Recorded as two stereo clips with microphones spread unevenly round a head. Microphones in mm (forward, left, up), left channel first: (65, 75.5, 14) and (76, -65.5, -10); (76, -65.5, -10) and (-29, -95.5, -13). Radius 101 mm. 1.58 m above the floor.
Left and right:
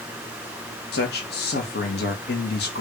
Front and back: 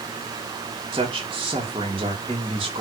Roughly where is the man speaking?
Behind left.